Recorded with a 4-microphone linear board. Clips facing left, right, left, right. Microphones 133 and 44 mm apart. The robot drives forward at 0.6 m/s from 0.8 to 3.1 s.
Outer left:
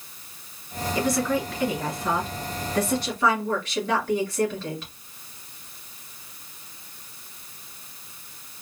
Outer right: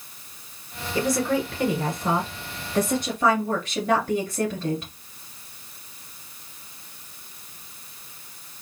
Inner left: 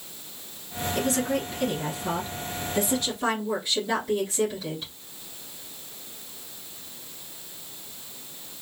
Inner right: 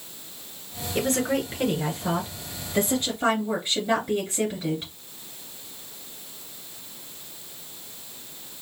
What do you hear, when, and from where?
0.9 s a woman speaking: 30° right (ahead or behind), 1.7 m; by 4.9 s 25° right (ahead or behind), 2 m